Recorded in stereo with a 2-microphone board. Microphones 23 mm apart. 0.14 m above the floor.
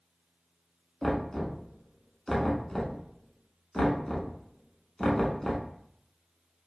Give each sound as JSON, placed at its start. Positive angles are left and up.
{"t": 1.0, "sound": "knocking", "side_deg": 15, "distance_m": 0.8}